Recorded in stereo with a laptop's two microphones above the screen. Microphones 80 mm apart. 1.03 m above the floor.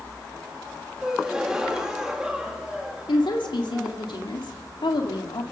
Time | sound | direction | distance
1.0 | a gasp | 10° right (ahead or behind) | 1.7 m
3.1 | a woman speaking | 75° left (ahead or behind) | 2 m